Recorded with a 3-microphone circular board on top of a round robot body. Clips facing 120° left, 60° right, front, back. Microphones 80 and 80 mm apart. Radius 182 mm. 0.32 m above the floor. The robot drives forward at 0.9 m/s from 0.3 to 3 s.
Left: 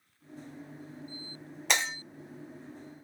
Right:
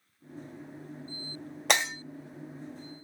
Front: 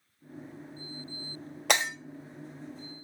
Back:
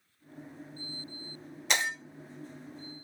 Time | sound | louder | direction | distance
1.7 | breaking glass | right 3 dB, front 3 dB | 25° right | 3 m